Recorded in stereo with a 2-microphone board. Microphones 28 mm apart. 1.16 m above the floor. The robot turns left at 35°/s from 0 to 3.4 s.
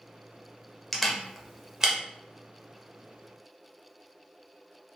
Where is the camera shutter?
5° left (ahead or behind), 0.5 m; by 1.9 s 20° right (ahead or behind), 0.5 m.